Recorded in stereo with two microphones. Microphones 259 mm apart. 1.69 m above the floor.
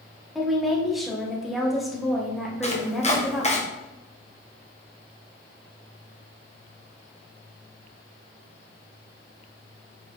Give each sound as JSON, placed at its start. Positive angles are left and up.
{"t": 0.3, "sound": "a woman speaking", "side_deg": 0, "distance_m": 2.0}
{"t": 2.6, "sound": "chopping", "side_deg": 25, "distance_m": 1.4}